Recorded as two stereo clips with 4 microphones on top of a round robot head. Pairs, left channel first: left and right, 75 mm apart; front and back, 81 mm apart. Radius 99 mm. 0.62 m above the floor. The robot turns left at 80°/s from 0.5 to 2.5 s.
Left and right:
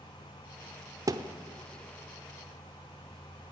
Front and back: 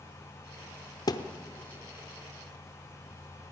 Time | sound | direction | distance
1.1 | a thud | 45° right | 0.8 m